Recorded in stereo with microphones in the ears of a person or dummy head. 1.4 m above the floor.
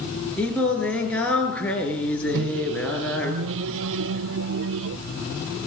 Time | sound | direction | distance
0.4 | singing | 5° left (ahead or behind) | 6.5 m
2.3 | a microwave | 65° right (ahead or behind) | 0.8 m